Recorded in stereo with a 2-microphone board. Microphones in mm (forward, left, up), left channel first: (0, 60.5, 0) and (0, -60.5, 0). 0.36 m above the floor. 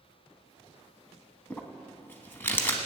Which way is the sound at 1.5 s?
15° left (ahead or behind).